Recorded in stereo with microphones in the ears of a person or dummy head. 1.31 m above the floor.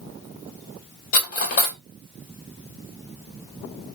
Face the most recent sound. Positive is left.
turn(degrees=55)  # may be behind; listen again after turning